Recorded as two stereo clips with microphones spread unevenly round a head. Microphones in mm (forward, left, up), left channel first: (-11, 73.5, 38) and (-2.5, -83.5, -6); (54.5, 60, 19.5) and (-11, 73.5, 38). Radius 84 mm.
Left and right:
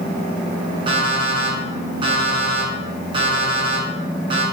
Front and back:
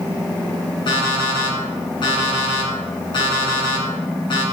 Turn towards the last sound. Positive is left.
turn(degrees=-25)